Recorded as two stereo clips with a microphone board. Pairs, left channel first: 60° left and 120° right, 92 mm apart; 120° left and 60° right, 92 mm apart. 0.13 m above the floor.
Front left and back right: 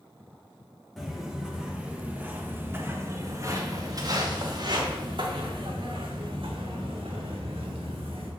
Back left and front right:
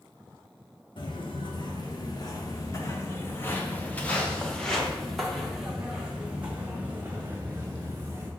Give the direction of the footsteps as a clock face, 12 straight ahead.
7 o'clock.